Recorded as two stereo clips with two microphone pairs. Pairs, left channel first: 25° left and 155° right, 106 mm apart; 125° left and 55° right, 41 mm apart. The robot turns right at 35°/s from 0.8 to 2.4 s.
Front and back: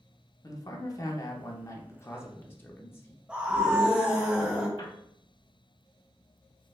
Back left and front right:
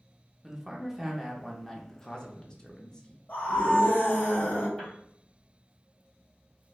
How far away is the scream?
About 1.5 m.